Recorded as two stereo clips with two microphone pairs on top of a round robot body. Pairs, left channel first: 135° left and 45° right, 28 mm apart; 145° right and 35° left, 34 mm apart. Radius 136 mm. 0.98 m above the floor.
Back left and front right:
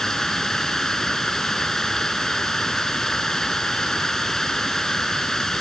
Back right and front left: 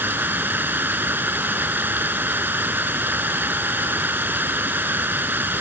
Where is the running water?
60° left.